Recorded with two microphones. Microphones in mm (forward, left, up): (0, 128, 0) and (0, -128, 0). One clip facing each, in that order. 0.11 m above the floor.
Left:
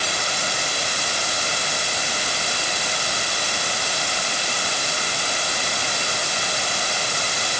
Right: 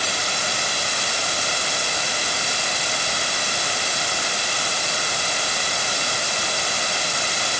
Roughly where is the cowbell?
I don't hear a cowbell.